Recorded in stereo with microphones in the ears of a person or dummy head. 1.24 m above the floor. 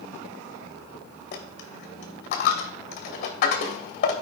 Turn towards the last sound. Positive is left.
turn(degrees=45)  # may be behind; listen again after turning